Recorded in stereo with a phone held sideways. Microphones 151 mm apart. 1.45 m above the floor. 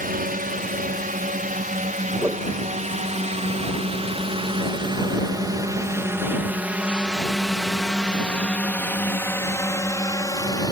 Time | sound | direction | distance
0.0 | a drone | 70° right (ahead or behind) | ?
2.2 | a whoosh | 15° right (ahead or behind) | ?